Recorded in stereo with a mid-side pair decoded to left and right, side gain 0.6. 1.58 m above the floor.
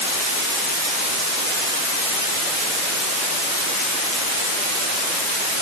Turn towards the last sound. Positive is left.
No sound to turn to.